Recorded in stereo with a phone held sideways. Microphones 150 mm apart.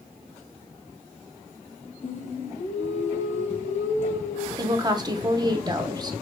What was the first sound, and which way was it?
Singing, 50° left (ahead or behind).